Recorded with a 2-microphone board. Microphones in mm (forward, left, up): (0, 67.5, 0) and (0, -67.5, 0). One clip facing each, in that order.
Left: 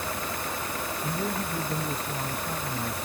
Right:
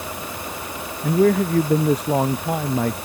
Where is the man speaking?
80° right; by 3.0 s 70° right (ahead or behind).